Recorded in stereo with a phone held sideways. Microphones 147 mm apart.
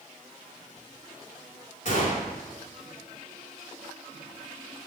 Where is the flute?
No flute in this recording.